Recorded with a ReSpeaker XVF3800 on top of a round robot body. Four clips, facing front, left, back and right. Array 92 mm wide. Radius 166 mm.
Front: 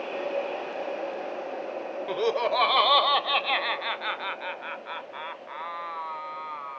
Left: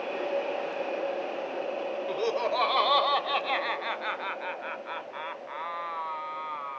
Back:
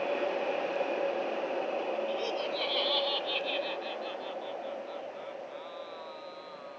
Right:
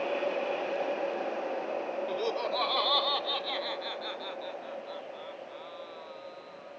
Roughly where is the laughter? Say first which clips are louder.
Left 5 dB, front 7 dB; ahead.